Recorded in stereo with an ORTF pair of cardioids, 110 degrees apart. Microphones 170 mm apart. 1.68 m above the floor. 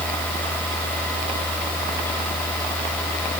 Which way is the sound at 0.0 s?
10° left.